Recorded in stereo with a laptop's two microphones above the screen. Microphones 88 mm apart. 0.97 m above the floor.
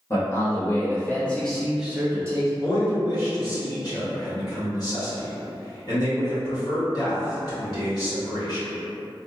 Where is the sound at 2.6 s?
45° left (ahead or behind), 1.8 m.